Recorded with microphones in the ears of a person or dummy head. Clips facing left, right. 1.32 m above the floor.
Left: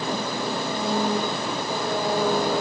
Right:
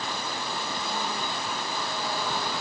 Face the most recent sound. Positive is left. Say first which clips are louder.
# left 7 dB
turn(degrees=45)  # may be behind; listen again after turning